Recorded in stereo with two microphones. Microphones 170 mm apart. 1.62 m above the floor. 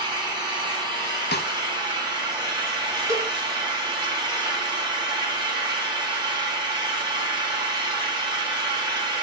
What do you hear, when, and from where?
0.0 s an engine running: 25° right (ahead or behind), 2.5 m
1.3 s a snare drum: 80° left, 0.7 m
3.1 s a cowbell: 15° right (ahead or behind), 2.5 m